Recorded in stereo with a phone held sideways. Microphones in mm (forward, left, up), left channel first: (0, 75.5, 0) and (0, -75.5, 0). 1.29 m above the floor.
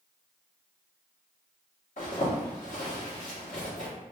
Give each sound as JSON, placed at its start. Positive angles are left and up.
{"t": 2.0, "sound": "a zipper", "side_deg": 60, "distance_m": 1.6}